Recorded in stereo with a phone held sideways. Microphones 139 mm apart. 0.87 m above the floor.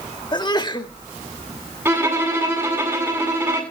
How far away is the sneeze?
About 2 m.